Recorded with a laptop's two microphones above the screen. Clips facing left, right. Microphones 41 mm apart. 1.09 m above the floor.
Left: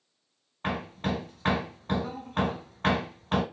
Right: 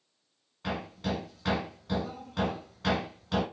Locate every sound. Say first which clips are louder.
0.6 s hammering: left 3 dB; 45° left (ahead or behind), 1.1 m